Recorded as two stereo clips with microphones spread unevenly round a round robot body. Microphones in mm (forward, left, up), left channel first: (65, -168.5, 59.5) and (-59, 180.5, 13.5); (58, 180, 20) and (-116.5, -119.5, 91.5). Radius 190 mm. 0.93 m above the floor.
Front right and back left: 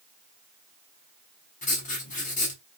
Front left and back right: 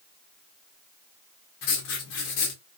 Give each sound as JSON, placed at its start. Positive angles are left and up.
{"t": 1.6, "sound": "writing", "azimuth_deg": 0, "distance_m": 0.6}